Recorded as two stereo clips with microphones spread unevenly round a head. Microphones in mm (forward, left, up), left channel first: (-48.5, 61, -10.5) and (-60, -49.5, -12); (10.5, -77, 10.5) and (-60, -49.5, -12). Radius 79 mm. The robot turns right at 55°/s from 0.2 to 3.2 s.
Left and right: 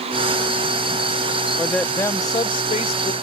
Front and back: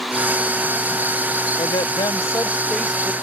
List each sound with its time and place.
1.6 s a woman speaking: 10° right; by 3.1 s 75° left